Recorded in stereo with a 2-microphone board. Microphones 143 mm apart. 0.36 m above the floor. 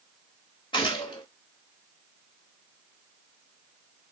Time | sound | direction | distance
0.7 | a gunshot | 30° left (ahead or behind) | 1.8 m